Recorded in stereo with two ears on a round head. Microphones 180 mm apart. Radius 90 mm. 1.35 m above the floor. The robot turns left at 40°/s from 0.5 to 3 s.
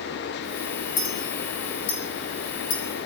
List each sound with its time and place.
1.0 s a clink: 65° left (ahead or behind), 6.5 m; by 2.8 s 40° left (ahead or behind), 6.5 m